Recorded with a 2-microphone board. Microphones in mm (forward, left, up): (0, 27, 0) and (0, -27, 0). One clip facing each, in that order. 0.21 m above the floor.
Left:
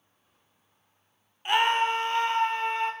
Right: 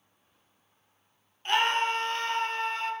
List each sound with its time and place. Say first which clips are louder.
1.4 s a scream: left 2 dB; 15° left (ahead or behind), 1.9 m; by 2.9 s 20° left (ahead or behind), 2.5 m